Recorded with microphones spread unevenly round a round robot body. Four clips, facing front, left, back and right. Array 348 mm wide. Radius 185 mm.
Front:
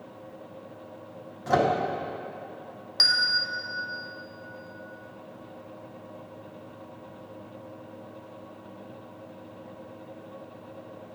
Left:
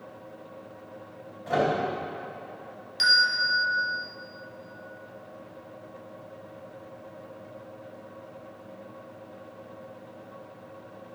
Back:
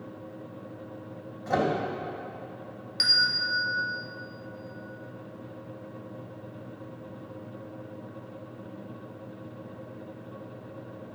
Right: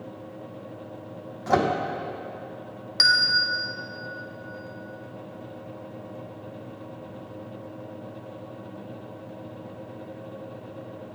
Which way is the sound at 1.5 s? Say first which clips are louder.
Right 3 dB, front 3 dB; 80° right.